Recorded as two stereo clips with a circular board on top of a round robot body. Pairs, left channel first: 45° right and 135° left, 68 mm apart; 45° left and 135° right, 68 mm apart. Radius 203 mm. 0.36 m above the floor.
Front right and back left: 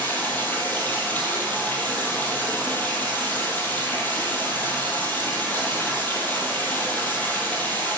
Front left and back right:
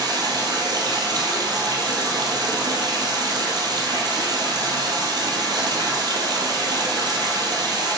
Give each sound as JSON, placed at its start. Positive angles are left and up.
{"t": 0.0, "sound": "running water", "azimuth_deg": -110, "distance_m": 1.7}